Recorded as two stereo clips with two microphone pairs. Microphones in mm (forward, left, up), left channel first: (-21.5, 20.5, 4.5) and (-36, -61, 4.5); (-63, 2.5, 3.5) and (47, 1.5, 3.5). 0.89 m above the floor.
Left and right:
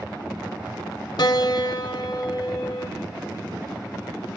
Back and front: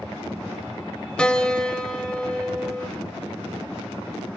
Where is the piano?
100° left, 1.1 m.